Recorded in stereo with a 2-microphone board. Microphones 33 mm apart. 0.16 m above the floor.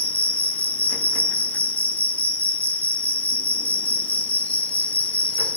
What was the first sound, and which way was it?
An insect, 60° left (ahead or behind).